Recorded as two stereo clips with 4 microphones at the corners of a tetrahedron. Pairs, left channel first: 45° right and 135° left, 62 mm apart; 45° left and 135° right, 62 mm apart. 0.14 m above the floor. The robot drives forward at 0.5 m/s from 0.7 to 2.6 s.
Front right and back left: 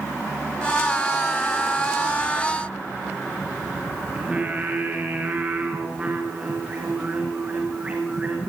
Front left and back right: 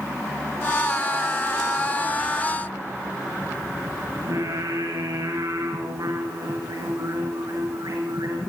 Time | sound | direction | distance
4.2 | singing | 160° right | 7 m